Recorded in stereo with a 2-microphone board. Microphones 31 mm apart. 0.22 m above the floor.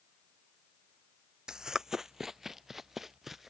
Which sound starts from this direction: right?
Running footsteps, at 1.5 s.